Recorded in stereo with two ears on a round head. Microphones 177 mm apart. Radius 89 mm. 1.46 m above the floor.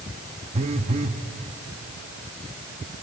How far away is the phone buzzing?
About 1.0 m.